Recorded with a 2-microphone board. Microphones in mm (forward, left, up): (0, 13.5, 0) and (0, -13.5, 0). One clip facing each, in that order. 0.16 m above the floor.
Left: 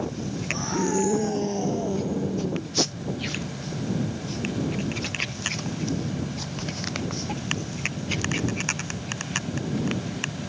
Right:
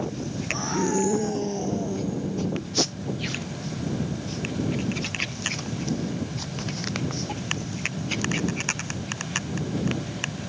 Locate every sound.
0.5 s a scream: 10° right (ahead or behind); by 2.7 s 25° left (ahead or behind)